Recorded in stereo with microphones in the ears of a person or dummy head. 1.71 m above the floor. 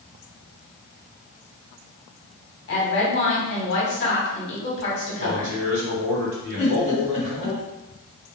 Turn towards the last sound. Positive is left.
turn(degrees=40)  # may be behind; listen again after turning